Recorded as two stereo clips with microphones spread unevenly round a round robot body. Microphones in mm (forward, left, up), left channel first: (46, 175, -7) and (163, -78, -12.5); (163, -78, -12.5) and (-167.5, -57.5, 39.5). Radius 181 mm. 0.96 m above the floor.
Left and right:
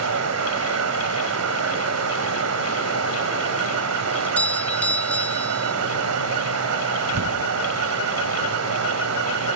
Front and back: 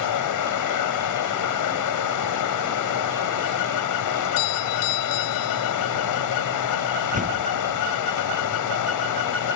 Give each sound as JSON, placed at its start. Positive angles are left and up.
{"t": 0.0, "sound": "running water", "azimuth_deg": -35}
{"t": 4.1, "sound": "a doorbell", "azimuth_deg": 30}
{"t": 7.1, "sound": "a door slam", "azimuth_deg": -115}